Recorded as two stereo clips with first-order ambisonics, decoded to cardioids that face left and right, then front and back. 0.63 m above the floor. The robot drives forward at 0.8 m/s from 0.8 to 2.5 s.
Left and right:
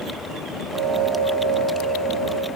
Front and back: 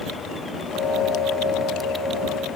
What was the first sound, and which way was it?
Only background noise.